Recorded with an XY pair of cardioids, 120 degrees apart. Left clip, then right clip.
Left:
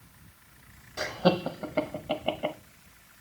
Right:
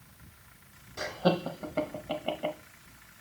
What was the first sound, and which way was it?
Laughter, 20° left.